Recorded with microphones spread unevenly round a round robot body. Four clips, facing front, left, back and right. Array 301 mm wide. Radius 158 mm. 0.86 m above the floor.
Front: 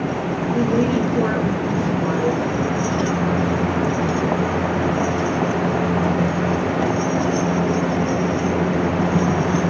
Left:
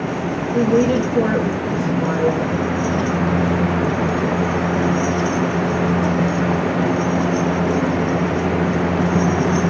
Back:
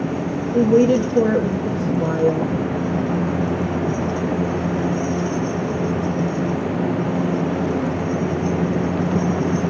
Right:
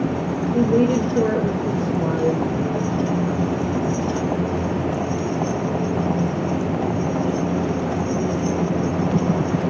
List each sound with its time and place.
0.5 s a woman speaking: 170° left, 1.0 m